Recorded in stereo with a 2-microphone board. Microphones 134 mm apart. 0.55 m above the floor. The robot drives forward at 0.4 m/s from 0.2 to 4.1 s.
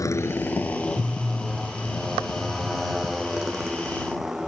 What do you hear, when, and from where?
0.0 s a motorcycle: 25° left (ahead or behind); by 4.5 s 5° right (ahead or behind)